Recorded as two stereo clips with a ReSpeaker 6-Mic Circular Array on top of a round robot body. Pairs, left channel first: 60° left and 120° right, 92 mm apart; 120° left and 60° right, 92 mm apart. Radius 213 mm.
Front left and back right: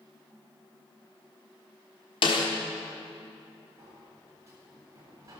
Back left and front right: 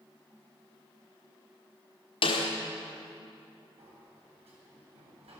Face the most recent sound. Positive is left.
turn(degrees=-65)